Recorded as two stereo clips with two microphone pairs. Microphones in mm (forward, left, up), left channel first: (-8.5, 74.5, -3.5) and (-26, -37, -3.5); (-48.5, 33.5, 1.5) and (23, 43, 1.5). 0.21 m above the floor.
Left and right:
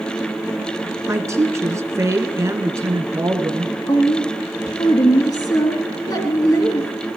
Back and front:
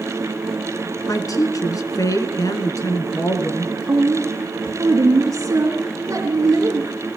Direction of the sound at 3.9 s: 35° left.